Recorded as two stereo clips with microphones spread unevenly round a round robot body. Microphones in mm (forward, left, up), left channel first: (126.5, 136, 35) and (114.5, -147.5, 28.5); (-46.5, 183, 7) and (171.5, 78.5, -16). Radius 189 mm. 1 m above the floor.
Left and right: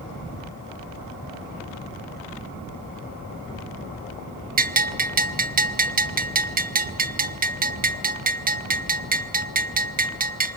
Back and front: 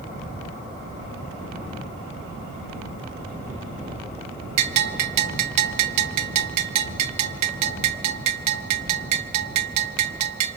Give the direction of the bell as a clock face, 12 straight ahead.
1 o'clock.